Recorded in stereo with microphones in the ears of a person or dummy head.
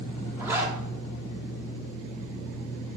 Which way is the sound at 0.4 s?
15° right (ahead or behind).